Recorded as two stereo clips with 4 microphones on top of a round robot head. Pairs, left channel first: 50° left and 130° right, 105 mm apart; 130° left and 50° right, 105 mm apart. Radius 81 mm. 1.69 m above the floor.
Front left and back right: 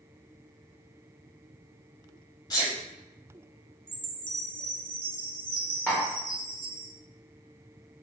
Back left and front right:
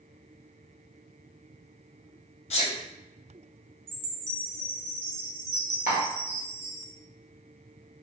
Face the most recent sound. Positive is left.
turn(degrees=125)